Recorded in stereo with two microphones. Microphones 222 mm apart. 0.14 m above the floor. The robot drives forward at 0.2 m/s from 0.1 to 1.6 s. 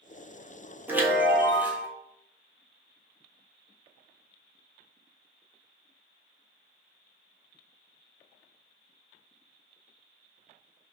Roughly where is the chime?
Centre.